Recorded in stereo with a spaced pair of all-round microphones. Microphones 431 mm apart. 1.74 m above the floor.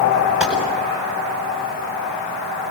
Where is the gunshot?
Centre (ahead or behind), 9 m.